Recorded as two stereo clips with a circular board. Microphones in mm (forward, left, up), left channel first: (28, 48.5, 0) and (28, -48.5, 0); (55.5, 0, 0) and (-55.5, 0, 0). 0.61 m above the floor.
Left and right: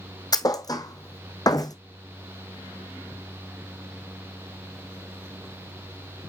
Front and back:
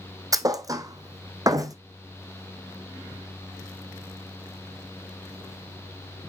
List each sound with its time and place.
0.3 s a thud: 130° left, 1.2 m